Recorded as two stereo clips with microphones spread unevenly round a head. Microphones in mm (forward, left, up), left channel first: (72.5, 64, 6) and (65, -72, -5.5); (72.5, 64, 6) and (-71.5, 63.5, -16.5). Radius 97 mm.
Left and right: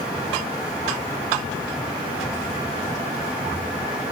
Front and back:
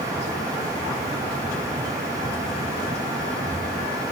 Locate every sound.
Only background noise.